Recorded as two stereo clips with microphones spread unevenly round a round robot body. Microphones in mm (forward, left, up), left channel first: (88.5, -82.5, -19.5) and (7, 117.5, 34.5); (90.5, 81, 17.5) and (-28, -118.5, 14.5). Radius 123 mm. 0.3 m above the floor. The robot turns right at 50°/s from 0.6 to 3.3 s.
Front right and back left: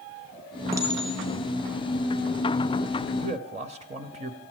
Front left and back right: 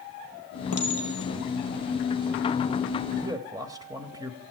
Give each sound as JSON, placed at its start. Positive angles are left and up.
{"t": 0.7, "sound": "a clink", "azimuth_deg": 35, "distance_m": 4.5}
{"t": 3.2, "sound": "a man speaking", "azimuth_deg": 170, "distance_m": 1.0}